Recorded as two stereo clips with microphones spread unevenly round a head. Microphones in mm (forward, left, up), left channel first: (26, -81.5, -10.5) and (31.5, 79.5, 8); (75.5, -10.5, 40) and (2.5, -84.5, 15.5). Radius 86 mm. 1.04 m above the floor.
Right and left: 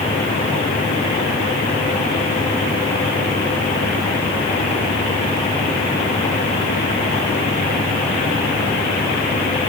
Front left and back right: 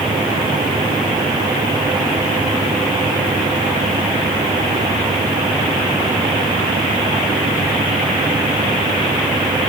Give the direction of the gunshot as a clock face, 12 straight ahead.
No gunshot in this recording.